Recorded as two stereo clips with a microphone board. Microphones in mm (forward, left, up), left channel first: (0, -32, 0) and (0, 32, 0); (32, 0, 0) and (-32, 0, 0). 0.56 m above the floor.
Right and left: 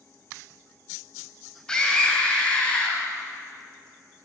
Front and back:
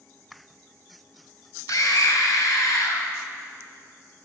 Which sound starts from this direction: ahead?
A scream, at 1.7 s.